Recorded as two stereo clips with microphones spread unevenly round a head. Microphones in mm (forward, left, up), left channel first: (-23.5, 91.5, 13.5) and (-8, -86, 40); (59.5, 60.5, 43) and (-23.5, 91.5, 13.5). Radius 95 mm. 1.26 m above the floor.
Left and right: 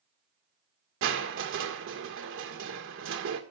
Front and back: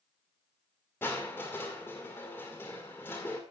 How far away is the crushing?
About 1.7 m.